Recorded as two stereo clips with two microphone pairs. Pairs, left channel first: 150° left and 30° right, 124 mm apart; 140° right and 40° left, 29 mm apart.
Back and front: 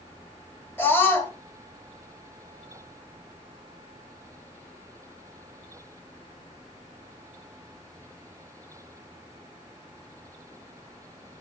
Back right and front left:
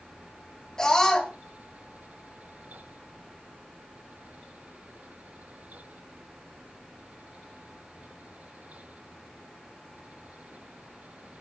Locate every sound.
0.8 s a scream: 160° right, 1.6 m